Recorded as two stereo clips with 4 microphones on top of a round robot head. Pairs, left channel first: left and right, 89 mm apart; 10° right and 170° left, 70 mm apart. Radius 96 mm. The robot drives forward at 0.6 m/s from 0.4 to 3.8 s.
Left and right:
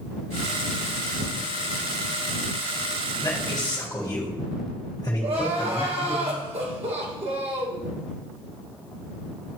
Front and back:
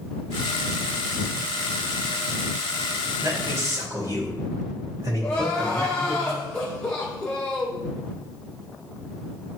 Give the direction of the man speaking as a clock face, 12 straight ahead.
8 o'clock.